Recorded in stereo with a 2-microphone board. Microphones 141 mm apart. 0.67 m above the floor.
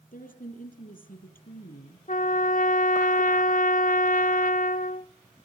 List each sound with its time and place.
0.1 s a woman speaking: 85° left, 8 m
2.1 s a trumpet: 85° left, 0.5 m